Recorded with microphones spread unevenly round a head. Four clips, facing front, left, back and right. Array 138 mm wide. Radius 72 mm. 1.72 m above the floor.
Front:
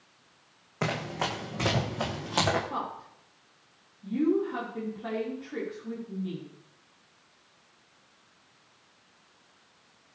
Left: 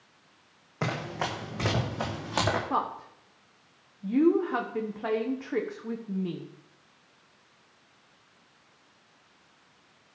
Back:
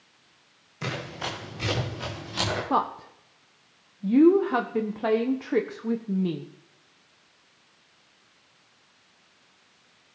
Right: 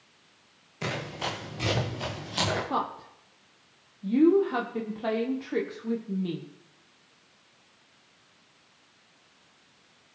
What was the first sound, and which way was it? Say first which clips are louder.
Running footsteps: left 2 dB, front 3 dB; 40° left.